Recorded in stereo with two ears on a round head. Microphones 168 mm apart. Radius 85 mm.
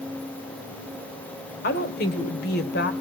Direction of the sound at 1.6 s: 55° left (ahead or behind).